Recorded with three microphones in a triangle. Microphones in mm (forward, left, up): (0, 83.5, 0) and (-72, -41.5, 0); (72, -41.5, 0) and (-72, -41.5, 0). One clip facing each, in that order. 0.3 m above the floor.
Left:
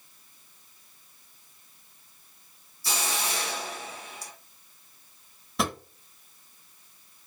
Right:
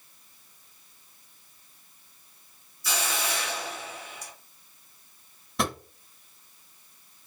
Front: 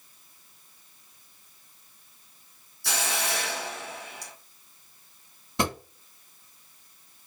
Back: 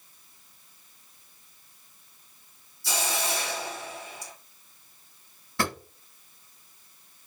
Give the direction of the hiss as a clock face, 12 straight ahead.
12 o'clock.